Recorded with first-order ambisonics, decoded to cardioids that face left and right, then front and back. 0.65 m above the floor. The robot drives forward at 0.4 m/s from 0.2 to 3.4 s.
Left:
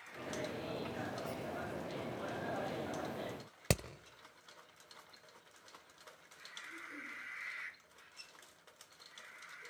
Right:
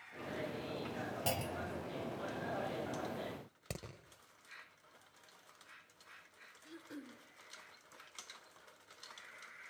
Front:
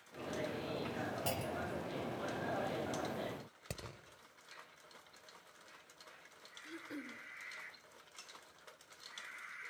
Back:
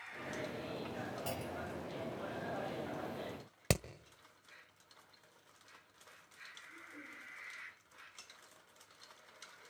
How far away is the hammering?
About 1.4 m.